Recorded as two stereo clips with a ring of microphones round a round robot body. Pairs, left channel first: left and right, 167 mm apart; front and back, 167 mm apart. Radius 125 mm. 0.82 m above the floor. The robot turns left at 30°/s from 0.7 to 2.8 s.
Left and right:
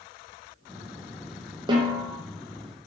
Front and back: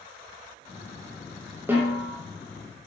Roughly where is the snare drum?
Behind right.